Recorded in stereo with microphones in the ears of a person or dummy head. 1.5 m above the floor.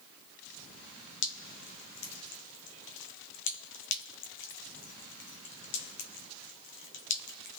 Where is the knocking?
I don't hear knocking.